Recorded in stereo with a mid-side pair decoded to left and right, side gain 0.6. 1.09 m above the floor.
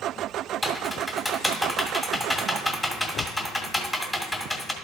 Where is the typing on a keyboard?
10° left, 1.7 m.